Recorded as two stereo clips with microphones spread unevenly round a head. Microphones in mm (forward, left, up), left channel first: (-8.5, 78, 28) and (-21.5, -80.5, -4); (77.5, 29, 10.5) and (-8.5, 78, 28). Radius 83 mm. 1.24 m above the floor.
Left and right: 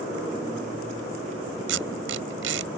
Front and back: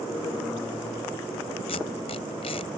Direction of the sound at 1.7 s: 85° right.